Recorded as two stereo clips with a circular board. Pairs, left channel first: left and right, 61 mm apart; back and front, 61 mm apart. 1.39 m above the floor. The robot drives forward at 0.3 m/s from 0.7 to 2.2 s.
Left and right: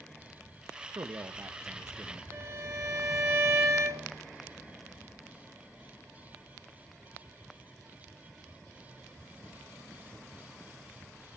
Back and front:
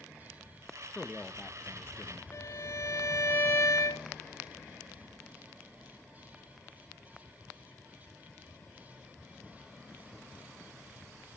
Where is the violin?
140° right, 3.5 m.